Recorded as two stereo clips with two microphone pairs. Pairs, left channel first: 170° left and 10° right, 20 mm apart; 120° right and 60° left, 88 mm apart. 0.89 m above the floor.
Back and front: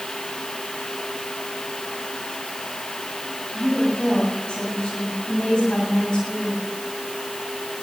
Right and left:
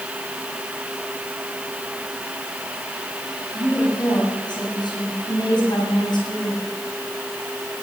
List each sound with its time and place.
3.5 s a woman speaking: 155° right, 7.5 m